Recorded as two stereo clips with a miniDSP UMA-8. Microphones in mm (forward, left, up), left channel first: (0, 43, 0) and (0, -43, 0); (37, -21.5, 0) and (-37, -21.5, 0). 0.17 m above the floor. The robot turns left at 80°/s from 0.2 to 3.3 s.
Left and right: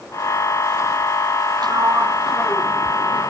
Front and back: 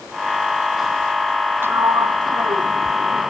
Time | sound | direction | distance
1.6 | a sliding door | 120° right | ?